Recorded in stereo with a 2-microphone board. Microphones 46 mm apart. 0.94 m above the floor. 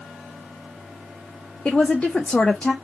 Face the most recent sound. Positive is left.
turn(degrees=20)  # may be behind; listen again after turning